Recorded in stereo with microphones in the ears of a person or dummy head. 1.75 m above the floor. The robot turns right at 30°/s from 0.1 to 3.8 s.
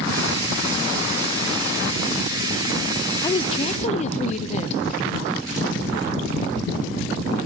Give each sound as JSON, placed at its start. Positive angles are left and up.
{"t": 3.2, "sound": "a woman speaking", "side_deg": 20, "distance_m": 0.9}